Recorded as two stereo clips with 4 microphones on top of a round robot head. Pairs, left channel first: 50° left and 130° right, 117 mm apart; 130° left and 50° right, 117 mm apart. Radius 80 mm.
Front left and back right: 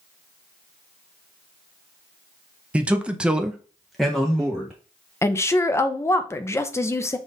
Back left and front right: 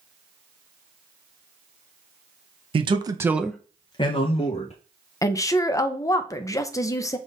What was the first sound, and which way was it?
A man speaking, 55° right.